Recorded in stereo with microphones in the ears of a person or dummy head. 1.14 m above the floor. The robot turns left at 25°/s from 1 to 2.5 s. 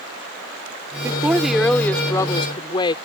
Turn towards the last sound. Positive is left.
turn(degrees=155)